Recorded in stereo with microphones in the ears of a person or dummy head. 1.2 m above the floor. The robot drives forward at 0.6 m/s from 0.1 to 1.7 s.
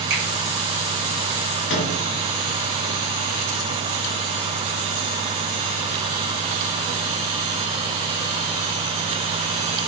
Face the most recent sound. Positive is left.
turn(degrees=55)  # may be behind; listen again after turning